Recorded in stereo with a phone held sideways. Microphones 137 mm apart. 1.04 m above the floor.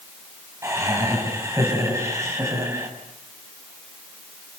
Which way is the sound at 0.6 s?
20° right (ahead or behind).